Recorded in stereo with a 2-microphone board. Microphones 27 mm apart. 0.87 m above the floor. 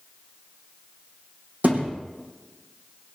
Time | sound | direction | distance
1.6 | a thud | 60° right (ahead or behind) | 4.5 m